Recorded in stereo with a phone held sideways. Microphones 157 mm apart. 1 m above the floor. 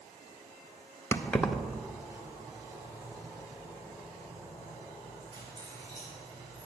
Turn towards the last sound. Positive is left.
turn(degrees=-30)  # may be behind; listen again after turning